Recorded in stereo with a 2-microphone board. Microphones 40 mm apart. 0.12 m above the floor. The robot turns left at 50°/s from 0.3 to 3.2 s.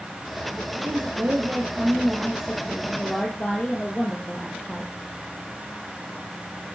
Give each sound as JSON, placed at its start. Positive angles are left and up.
{"t": 0.8, "sound": "a woman speaking", "azimuth_deg": -90, "distance_m": 3.5}